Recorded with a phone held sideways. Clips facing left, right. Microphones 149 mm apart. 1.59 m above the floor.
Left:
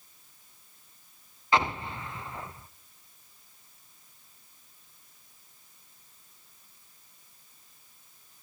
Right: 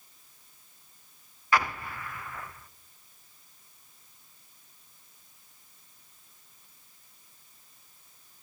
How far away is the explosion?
About 0.7 m.